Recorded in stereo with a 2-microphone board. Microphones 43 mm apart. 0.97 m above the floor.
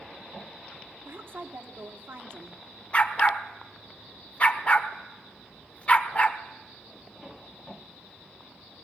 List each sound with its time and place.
1.1 s a woman speaking: 60° right (ahead or behind), 2 m
2.9 s a dog barking: 30° left (ahead or behind), 1.3 m